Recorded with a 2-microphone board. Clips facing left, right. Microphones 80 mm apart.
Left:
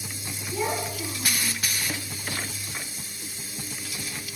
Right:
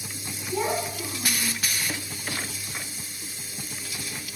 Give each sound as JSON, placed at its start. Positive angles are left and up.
{"t": 0.5, "sound": "a child speaking", "side_deg": -40, "distance_m": 7.0}